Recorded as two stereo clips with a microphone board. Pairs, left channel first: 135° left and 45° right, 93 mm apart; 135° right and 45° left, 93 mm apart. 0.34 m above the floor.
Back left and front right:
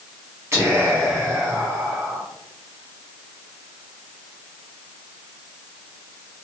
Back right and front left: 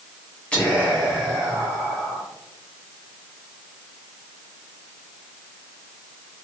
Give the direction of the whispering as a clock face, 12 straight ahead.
2 o'clock.